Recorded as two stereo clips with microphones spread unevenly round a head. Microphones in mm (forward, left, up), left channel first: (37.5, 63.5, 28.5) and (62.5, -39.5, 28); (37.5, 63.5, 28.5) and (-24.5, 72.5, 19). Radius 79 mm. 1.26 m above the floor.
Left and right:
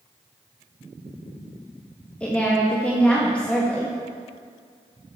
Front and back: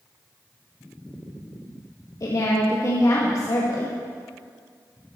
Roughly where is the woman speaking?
Ahead left.